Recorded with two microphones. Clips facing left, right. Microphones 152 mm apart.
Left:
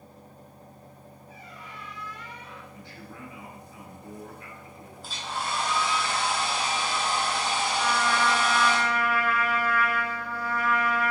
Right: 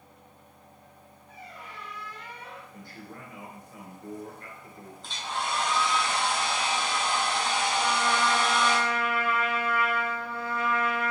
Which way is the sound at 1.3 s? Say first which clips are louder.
Right 2 dB; 45° right (ahead or behind).